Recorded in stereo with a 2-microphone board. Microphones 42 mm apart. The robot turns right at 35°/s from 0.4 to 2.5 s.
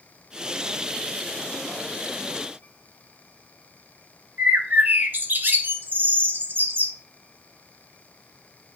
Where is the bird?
50° right (ahead or behind), 0.9 m.